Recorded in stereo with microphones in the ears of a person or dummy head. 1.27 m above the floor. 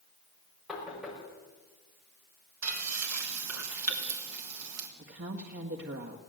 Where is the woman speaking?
60° right (ahead or behind), 1.7 m.